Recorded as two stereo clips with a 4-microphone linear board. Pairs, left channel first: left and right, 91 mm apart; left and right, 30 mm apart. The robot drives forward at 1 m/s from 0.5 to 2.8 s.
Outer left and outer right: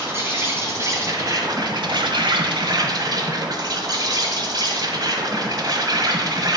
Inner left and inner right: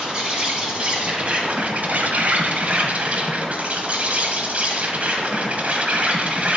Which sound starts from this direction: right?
An insect, at 0.0 s.